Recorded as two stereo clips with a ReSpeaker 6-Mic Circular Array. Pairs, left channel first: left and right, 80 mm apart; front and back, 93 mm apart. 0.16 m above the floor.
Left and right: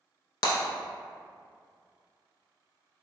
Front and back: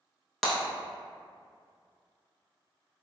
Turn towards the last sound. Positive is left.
turn(degrees=85)